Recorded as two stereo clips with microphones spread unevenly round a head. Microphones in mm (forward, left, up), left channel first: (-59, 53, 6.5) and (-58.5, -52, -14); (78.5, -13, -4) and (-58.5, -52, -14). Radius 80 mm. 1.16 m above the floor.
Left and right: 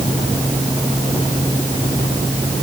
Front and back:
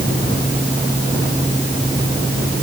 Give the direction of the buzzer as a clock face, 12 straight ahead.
No buzzer in this recording.